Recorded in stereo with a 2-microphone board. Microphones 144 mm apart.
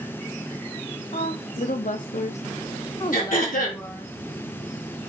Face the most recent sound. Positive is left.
turn(degrees=75)  # may be behind; listen again after turning